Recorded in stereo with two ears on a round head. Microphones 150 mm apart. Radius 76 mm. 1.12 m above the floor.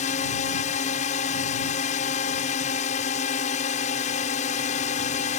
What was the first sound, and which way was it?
A drone, 45° left (ahead or behind).